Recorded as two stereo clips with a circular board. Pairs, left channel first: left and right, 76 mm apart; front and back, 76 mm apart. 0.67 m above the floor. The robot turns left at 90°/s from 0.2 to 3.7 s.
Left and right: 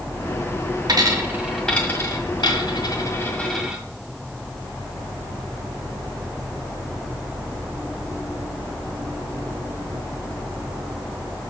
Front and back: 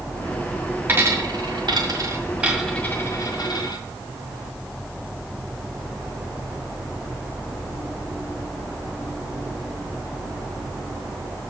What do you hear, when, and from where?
0.9 s a dropped coin: 115° right, 1.9 m; by 3.8 s 10° right, 1.9 m